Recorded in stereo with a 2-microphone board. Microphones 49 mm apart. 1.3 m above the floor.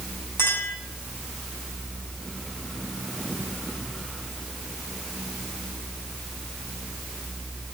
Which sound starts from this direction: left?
A clink, at 0.4 s.